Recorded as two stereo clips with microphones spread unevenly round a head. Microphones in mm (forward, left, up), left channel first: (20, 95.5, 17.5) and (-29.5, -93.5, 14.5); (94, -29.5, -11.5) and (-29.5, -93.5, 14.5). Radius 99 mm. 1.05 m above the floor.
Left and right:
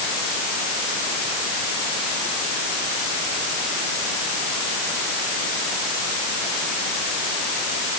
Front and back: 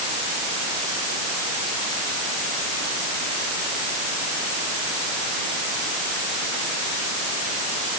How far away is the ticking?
I don't hear ticking.